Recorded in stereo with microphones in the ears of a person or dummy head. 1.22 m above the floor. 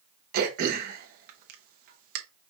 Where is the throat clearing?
45° right (ahead or behind), 0.9 m.